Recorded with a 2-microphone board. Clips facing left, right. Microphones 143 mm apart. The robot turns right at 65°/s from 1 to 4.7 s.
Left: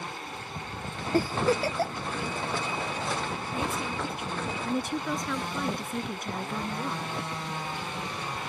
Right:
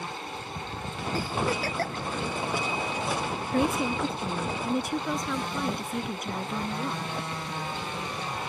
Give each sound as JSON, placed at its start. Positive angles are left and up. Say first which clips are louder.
{"t": 1.1, "sound": "a giggle", "louder": "left 5 dB", "side_deg": 55}
{"t": 3.5, "sound": "a woman speaking", "louder": "right 8 dB", "azimuth_deg": -80}